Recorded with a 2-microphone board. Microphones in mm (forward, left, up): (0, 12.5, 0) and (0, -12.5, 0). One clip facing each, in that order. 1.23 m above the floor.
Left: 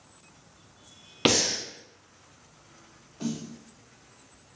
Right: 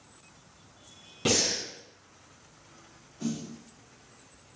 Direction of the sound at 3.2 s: 45° left (ahead or behind).